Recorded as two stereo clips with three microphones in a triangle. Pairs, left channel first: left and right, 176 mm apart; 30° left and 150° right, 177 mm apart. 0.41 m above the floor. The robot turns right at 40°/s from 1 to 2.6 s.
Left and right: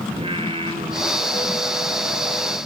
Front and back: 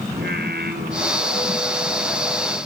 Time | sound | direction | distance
0.1 | singing | 145° right | 4 m